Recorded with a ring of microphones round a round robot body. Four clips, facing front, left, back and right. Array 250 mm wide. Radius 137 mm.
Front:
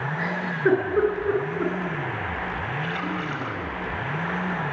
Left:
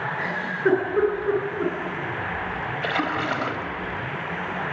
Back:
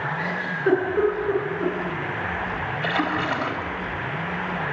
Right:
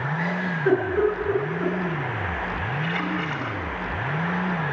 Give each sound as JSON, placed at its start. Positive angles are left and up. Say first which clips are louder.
{"t": 0.2, "sound": "a giggle", "louder": "left 1 dB, front 4 dB", "azimuth_deg": 40, "distance_m": 10.0}
{"t": 2.8, "sound": "a splash", "louder": "left 5 dB, back 5 dB", "azimuth_deg": 125, "distance_m": 3.5}